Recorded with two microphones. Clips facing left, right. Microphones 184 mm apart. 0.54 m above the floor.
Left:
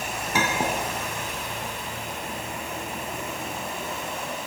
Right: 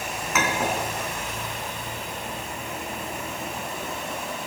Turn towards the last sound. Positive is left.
turn(degrees=30)  # may be behind; listen again after turning